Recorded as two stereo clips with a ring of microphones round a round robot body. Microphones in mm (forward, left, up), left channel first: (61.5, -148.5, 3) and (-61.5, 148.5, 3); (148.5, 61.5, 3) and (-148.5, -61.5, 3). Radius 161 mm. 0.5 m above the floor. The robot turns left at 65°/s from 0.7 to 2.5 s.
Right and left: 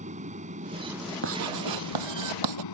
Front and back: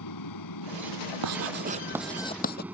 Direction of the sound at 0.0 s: 45° left.